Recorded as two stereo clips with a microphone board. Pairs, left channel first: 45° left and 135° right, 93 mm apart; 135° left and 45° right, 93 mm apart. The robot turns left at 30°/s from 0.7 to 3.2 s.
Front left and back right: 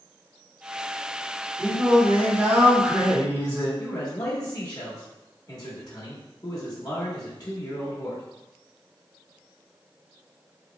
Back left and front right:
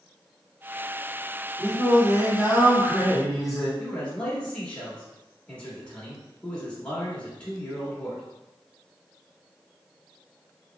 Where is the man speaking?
65° left, 0.9 m.